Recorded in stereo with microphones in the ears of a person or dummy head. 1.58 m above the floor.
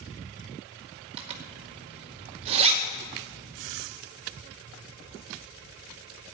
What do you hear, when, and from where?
1.2 s a zipper: 30° right (ahead or behind), 2 m